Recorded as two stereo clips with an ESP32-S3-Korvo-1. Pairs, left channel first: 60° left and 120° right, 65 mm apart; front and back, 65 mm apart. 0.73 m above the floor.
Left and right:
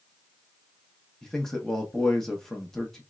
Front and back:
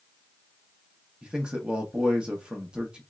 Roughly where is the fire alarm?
No fire alarm in this recording.